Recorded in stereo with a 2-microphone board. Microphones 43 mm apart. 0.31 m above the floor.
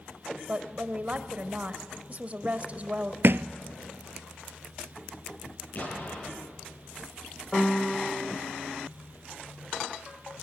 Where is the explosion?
45° left (ahead or behind), 8 m.